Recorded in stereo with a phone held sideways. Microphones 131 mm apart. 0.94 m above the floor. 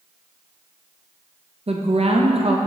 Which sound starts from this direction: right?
A woman speaking, at 1.7 s.